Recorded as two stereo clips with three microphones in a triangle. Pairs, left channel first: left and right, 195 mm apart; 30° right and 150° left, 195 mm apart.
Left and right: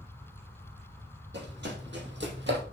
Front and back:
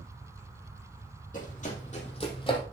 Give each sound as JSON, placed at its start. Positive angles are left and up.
{"t": 1.3, "sound": "running footsteps", "azimuth_deg": -75, "distance_m": 4.0}